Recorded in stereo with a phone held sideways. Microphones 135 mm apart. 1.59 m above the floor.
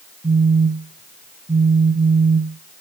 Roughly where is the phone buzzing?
Right.